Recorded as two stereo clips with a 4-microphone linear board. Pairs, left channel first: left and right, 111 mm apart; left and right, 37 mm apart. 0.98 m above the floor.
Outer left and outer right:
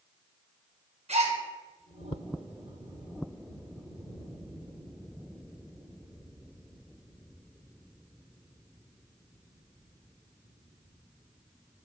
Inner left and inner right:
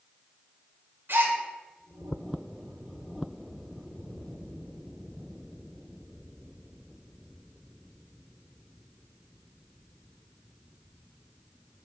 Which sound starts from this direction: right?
A gasp, at 1.1 s.